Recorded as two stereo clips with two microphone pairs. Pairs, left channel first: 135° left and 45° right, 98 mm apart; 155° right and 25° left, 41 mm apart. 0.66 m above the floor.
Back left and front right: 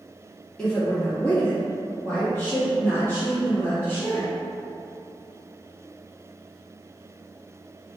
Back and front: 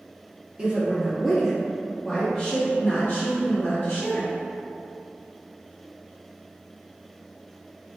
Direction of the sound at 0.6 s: 60° left.